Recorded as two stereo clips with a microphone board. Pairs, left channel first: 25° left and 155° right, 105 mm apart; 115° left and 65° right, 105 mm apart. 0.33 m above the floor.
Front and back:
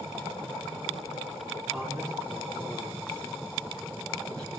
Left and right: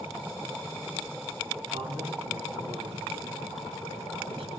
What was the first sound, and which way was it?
A man speaking, 60° right.